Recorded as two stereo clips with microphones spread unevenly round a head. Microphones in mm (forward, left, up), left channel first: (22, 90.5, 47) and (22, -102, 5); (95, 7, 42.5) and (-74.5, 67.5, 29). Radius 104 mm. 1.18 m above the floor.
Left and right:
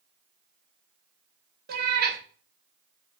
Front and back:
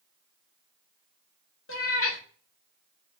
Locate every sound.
1.7 s a cat meowing: 45° right, 1.0 m